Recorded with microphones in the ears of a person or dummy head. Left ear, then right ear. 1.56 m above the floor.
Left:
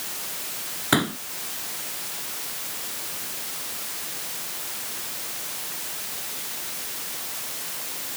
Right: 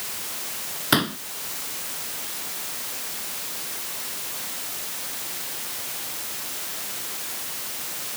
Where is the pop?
10° right (ahead or behind).